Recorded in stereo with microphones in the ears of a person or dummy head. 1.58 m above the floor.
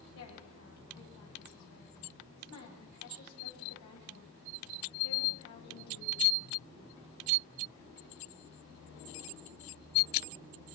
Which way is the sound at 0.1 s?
85° left.